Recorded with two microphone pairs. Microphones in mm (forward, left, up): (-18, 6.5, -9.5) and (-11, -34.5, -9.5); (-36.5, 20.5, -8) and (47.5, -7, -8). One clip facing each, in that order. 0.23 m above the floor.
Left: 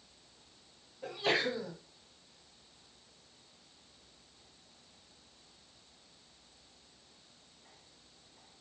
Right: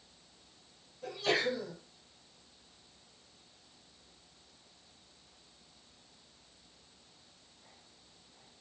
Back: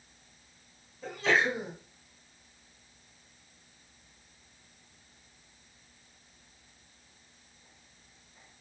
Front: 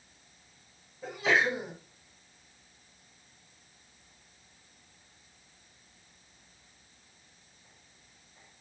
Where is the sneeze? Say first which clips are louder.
Even, even; 55° left, 1.4 m.